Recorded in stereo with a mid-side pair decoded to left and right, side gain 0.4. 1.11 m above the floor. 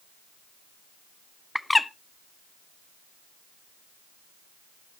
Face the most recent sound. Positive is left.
turn(degrees=20)